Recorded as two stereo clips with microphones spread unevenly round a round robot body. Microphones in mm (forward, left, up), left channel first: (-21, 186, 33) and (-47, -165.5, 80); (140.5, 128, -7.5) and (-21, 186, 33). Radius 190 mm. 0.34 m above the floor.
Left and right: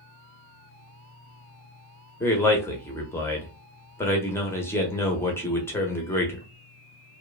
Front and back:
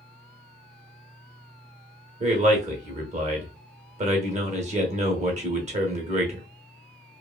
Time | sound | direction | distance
2.2 | a man speaking | 145° left | 0.8 m